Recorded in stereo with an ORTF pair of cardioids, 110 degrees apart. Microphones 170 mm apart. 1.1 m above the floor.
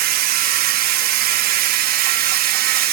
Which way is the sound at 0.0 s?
70° right.